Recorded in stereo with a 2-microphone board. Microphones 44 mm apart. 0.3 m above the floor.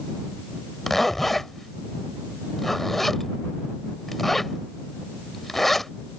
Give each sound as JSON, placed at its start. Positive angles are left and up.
{"t": 0.9, "sound": "a zipper", "side_deg": 5}